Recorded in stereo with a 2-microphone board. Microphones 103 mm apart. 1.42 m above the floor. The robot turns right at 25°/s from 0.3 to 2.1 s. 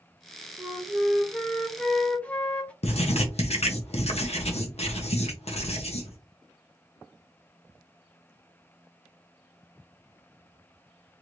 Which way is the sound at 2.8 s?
90° left.